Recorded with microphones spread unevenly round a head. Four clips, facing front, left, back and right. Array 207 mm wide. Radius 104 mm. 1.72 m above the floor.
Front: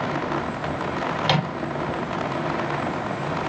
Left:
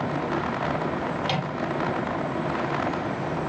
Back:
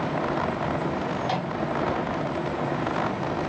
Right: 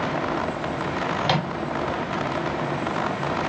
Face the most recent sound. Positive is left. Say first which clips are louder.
# right 4 dB, front 4 dB
turn(degrees=-35)